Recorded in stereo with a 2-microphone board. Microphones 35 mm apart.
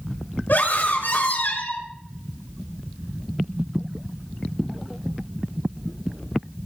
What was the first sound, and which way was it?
A scream, 70° left (ahead or behind).